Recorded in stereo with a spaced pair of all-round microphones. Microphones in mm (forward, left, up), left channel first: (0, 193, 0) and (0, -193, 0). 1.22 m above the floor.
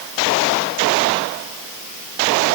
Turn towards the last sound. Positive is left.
No sound to turn to.